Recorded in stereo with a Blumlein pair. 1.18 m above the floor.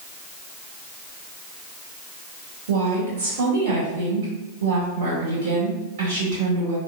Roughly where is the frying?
No frying in this recording.